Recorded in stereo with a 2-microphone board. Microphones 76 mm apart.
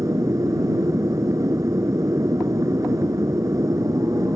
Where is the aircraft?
45° right (ahead or behind).